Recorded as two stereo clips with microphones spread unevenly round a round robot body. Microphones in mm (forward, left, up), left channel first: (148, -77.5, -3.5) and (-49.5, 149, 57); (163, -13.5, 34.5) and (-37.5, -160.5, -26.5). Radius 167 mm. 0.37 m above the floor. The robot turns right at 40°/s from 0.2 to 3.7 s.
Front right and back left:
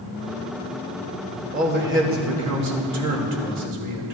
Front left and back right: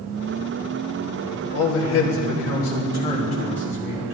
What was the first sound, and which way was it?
A man speaking, 65° left.